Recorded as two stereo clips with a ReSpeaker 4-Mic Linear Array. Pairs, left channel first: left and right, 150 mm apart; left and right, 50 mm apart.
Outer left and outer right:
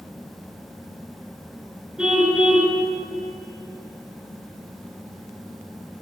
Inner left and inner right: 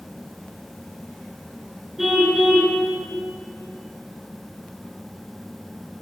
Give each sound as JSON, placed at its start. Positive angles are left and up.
{"t": 2.0, "sound": "a car horn", "side_deg": -5, "distance_m": 7.0}